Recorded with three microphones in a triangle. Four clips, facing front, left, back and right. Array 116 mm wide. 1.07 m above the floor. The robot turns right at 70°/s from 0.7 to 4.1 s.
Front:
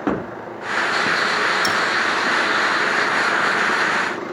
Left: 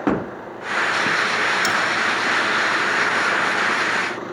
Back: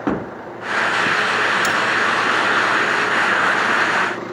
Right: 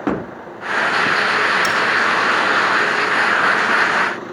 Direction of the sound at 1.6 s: 65° left.